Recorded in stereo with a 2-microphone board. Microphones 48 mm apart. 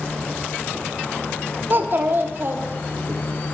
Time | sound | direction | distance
1.7 | a child speaking | 50° right (ahead or behind) | 0.7 m